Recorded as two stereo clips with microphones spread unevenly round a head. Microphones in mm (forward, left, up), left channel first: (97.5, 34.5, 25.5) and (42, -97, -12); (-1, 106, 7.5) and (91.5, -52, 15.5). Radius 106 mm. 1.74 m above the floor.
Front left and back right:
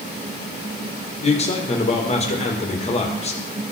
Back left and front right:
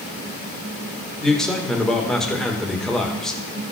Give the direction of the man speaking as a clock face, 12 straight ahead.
11 o'clock.